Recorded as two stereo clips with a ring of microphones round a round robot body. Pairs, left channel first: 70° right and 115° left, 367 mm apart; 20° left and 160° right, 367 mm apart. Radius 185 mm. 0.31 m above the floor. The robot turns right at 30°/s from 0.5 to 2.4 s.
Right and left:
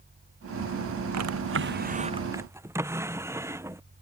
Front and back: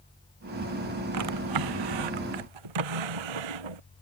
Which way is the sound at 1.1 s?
160° left.